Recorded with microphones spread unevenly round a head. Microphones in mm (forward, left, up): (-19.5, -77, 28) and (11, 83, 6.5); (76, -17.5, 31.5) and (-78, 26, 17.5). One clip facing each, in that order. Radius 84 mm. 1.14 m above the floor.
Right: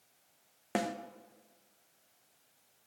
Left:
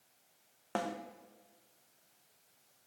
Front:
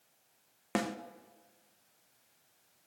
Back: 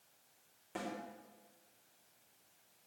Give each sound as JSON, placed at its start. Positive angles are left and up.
{"t": 0.8, "sound": "a snare drum", "azimuth_deg": -30, "distance_m": 0.7}